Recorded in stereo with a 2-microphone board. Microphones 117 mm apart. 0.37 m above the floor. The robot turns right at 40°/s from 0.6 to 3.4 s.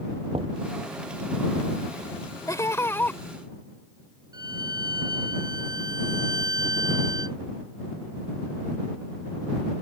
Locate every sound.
0.3 s knocking: 55° right (ahead or behind)
2.5 s laughter: 30° left (ahead or behind); by 3.2 s 15° left (ahead or behind)
4.3 s a violin: 35° right (ahead or behind)